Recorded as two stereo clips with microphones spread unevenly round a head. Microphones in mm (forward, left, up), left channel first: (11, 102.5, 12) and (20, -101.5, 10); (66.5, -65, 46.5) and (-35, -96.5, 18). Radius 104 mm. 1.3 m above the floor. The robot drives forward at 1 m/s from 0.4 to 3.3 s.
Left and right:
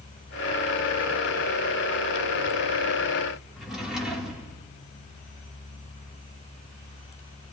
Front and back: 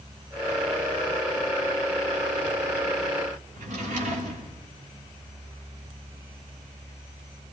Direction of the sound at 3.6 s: 175° right.